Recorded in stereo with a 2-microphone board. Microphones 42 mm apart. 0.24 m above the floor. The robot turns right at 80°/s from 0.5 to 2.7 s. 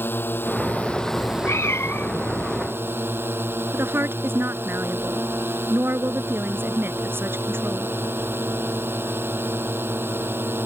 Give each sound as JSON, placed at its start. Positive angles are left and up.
{"t": 0.0, "sound": "a drone", "azimuth_deg": 120}
{"t": 1.2, "sound": "a cat meowing", "azimuth_deg": 55}
{"t": 3.7, "sound": "a woman speaking", "side_deg": -70}